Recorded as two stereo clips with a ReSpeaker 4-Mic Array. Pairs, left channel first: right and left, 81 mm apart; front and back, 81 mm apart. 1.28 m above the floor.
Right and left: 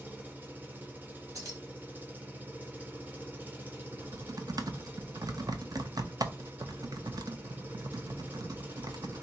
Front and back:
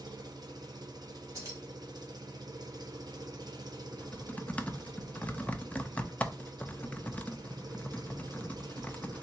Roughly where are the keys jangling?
Behind left.